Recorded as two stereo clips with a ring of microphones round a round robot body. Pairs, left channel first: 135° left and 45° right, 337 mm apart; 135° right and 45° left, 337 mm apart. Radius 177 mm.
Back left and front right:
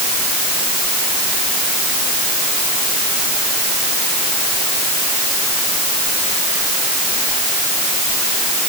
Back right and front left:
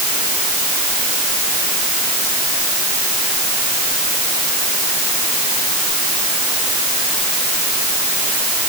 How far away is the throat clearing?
No throat clearing in this recording.